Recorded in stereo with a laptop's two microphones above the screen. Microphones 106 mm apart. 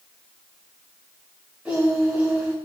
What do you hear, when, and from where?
1.6 s singing: 10° right (ahead or behind), 7.5 m